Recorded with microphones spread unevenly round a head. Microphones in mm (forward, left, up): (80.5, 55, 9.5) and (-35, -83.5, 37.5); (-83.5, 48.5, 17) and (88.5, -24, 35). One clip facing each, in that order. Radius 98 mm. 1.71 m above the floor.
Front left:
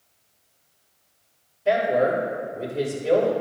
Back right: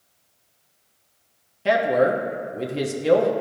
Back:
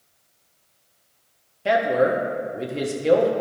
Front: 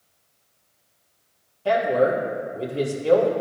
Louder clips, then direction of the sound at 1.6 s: Back right 1 dB, even; 135° right.